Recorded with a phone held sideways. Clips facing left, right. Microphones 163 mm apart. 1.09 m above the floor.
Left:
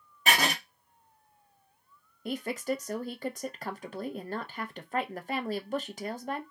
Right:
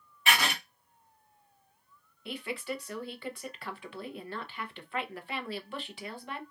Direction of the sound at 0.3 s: 40° left (ahead or behind).